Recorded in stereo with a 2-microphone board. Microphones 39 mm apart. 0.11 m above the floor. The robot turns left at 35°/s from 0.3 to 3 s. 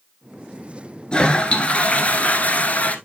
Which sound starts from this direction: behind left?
A toilet flushing, at 1.1 s.